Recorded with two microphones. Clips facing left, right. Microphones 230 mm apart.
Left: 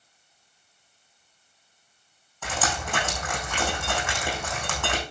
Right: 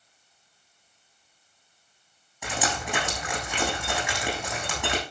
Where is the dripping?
10° right (ahead or behind), 7 m.